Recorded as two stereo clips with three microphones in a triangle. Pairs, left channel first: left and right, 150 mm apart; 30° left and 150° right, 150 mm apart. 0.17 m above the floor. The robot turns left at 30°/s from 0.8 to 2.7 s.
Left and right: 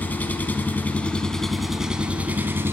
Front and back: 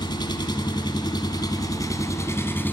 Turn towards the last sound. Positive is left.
turn(degrees=-35)